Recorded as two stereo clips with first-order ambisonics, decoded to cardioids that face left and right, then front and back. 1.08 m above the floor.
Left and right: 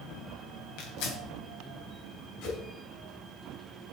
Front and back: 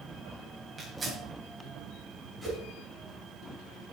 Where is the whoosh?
100° left, 5.5 m.